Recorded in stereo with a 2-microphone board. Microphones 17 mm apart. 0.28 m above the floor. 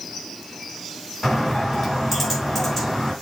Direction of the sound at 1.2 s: 15° left (ahead or behind).